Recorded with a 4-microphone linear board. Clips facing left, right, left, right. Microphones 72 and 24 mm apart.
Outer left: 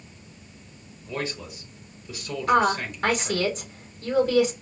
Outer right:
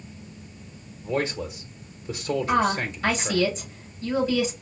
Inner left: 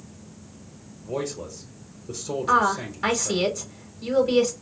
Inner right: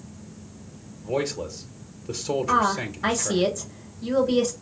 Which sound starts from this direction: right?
A man speaking, at 1.0 s.